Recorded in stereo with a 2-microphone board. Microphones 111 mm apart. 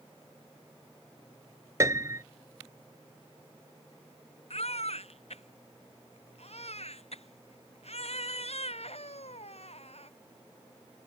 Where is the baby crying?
70° left (ahead or behind).